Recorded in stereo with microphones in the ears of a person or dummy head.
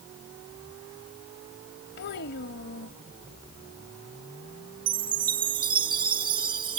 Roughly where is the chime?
Right.